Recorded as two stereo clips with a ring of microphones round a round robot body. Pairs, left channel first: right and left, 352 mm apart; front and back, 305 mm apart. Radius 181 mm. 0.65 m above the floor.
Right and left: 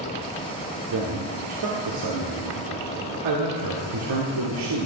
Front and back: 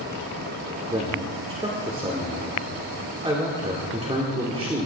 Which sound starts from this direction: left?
A man speaking, at 0.9 s.